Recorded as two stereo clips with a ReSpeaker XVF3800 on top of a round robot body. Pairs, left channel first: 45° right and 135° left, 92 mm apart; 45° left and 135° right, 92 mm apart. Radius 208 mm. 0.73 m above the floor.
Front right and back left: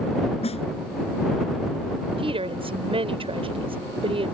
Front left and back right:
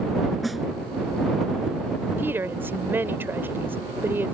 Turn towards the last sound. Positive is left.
turn(degrees=155)